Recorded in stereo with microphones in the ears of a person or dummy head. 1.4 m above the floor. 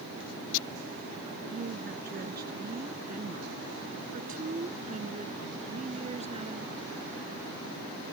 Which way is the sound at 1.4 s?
55° right (ahead or behind).